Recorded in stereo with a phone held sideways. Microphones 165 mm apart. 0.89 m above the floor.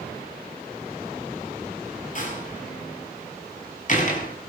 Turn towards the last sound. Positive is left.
turn(degrees=55)  # may be behind; listen again after turning